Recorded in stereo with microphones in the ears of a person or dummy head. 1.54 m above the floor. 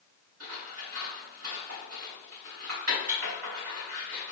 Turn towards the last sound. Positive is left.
turn(degrees=-90)